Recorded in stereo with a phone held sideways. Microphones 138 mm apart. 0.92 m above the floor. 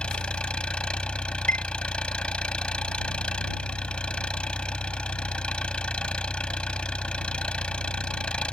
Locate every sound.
0.0 s an engine running: 10° left (ahead or behind)
1.5 s a chime: 70° right (ahead or behind)